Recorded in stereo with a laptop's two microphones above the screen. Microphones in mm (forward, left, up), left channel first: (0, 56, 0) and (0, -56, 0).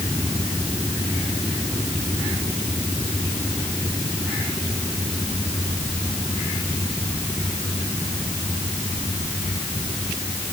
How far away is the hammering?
No hammering in this recording.